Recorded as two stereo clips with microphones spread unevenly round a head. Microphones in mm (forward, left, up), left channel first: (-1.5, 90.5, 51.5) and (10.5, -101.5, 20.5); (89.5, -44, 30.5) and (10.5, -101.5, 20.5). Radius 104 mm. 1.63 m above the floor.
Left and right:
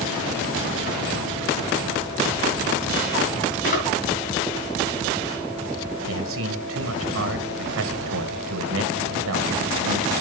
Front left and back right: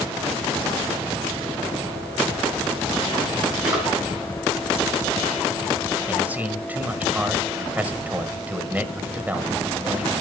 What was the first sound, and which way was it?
A drawer, 140° left.